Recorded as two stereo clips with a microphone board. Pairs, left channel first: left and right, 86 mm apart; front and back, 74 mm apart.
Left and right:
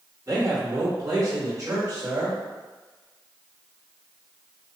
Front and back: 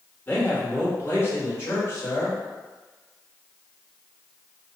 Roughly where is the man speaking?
Ahead right.